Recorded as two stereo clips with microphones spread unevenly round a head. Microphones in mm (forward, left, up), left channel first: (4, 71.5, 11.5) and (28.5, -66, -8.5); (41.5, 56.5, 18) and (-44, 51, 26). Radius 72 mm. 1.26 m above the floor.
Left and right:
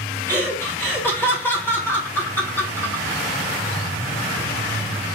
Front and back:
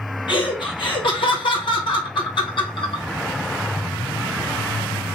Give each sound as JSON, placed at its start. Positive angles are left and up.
{"t": 0.3, "sound": "laughter", "azimuth_deg": 25, "distance_m": 1.3}